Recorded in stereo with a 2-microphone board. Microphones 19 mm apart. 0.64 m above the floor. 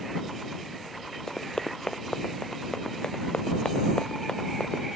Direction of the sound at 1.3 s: 35° left (ahead or behind).